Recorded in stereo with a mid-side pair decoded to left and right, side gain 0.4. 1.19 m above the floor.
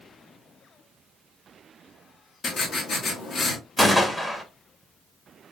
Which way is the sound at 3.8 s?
20° left.